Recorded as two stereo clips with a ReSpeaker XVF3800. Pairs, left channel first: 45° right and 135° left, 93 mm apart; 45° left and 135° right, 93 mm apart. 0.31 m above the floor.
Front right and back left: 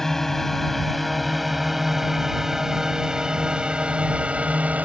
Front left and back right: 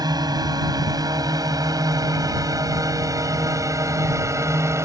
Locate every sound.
0.0 s a drone: 130° right; by 4.9 s 160° right